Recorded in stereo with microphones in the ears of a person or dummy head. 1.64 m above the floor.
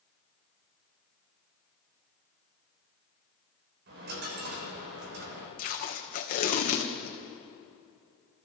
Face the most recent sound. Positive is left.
turn(degrees=40)  # may be behind; listen again after turning